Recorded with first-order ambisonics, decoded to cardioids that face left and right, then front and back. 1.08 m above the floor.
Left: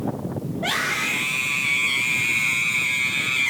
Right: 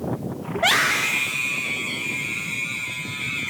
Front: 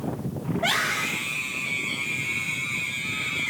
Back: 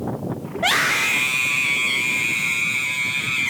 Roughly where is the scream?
Behind right.